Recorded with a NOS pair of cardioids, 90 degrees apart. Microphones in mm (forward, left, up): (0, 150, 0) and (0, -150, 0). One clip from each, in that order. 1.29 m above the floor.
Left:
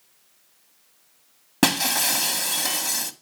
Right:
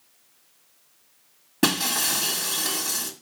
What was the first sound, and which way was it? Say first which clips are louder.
Breaking glass: left 2 dB; 65° left.